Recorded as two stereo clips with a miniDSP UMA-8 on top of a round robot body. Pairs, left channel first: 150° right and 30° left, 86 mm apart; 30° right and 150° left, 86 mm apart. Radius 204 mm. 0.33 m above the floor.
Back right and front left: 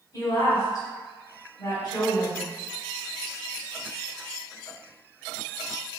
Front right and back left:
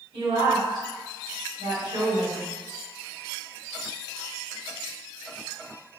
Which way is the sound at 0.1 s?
160° left.